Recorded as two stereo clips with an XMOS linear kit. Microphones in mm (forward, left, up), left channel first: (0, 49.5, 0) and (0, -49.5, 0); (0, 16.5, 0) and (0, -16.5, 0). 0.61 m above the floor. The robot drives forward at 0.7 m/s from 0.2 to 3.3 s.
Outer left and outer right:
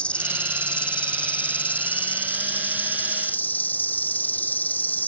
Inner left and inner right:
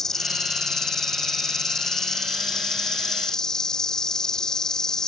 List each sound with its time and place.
0.0 s an insect: 15° left (ahead or behind); by 5.1 s 20° left (ahead or behind)